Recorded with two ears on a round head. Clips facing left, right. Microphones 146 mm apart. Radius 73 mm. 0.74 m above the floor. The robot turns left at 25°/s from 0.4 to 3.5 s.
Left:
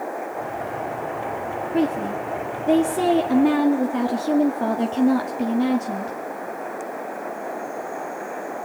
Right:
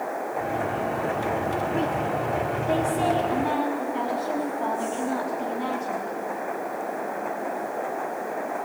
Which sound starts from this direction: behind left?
A woman speaking, at 1.7 s.